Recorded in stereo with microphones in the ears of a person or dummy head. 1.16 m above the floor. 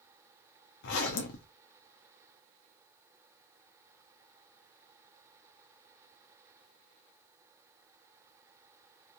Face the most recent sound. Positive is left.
turn(degrees=65)  # may be behind; listen again after turning